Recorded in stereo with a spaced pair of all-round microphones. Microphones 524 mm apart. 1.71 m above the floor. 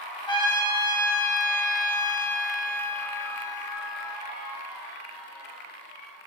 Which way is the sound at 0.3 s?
10° left (ahead or behind).